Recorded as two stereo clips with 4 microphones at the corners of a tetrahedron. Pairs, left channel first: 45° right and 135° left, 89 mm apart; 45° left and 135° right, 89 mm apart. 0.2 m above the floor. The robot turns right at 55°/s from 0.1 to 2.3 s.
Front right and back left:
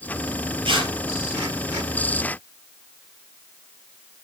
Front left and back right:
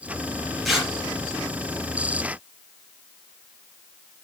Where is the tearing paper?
135° left, 3.5 m; by 0.9 s 150° left, 3.5 m.